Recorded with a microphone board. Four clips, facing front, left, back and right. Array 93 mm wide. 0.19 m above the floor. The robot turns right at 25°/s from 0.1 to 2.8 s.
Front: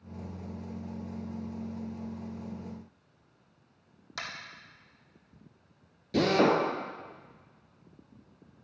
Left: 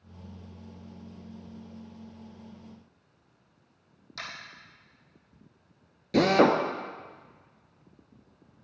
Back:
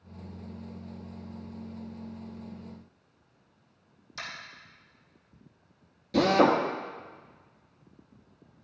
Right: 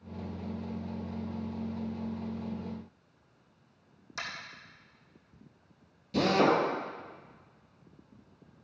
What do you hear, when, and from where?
4.2 s tapping: 10° right, 3.5 m
6.1 s a drill: 90° left, 1.6 m